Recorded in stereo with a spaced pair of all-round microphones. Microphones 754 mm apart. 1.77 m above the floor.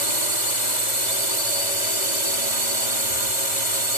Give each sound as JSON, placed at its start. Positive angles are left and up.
{"t": 0.0, "sound": "a drone", "side_deg": -65}